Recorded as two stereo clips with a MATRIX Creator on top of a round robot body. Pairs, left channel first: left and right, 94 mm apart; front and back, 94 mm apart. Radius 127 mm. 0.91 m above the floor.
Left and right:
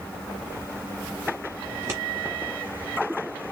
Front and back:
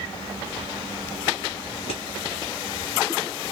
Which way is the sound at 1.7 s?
30° right.